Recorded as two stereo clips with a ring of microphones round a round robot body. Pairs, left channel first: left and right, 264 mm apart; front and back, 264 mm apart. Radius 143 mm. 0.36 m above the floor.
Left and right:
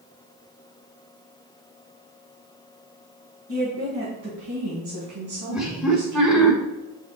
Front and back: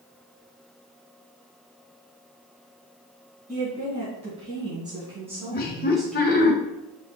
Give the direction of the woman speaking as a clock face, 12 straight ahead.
4 o'clock.